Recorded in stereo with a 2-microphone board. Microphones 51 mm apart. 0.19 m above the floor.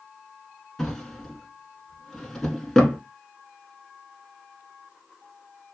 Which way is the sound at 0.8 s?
5° left (ahead or behind).